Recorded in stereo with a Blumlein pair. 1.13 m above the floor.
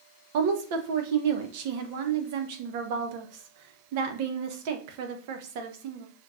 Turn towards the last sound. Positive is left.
turn(degrees=-50)